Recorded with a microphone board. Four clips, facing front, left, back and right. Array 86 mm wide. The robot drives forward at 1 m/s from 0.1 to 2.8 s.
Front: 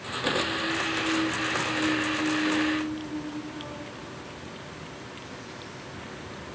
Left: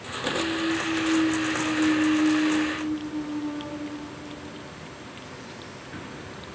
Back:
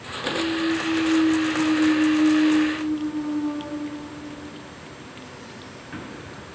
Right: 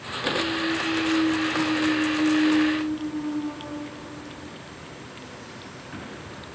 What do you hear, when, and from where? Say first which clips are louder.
0.3 s a clunk: even, back 7 dB; 130° right, 4 m; by 6.5 s 150° right, 6 m